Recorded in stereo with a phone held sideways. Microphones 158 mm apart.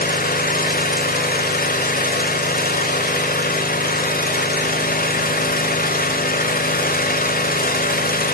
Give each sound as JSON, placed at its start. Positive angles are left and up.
{"t": 0.0, "sound": "an engine running", "side_deg": 65, "distance_m": 1.1}